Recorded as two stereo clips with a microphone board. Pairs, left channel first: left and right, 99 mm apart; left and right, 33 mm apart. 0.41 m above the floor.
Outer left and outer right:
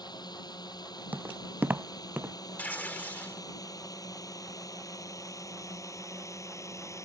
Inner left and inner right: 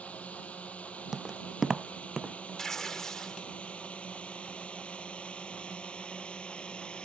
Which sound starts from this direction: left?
A drone, at 0.0 s.